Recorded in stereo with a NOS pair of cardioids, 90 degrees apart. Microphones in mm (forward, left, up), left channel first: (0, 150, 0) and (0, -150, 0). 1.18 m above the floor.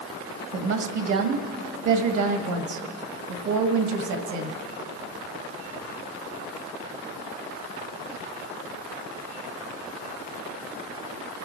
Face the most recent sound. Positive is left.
turn(degrees=-70)